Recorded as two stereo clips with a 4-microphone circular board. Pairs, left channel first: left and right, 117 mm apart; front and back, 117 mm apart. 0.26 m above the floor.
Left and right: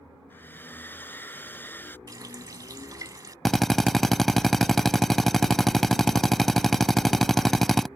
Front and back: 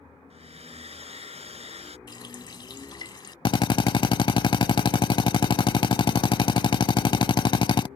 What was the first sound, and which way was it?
A hair dryer, 165° left.